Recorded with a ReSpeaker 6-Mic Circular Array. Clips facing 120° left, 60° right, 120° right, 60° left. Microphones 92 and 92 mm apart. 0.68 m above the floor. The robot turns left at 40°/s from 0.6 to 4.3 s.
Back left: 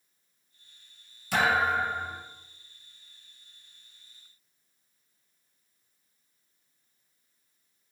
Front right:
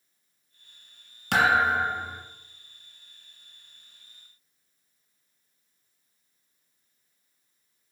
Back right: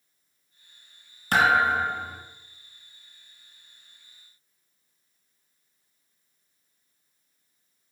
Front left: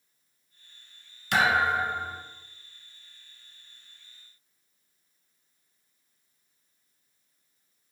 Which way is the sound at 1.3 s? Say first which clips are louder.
Front right 3 dB, back right 3 dB; 65° right.